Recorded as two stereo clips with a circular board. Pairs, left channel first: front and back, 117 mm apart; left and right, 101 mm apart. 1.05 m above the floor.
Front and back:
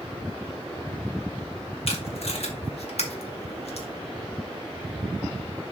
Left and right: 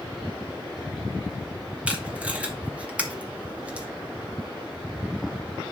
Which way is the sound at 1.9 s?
15° right.